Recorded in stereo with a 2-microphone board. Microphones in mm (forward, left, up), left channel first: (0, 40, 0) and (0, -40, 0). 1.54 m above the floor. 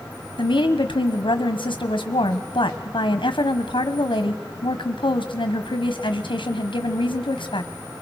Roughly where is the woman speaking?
Left.